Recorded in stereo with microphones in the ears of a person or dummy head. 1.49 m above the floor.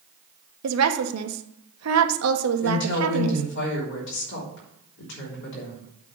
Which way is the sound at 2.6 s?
65° left (ahead or behind).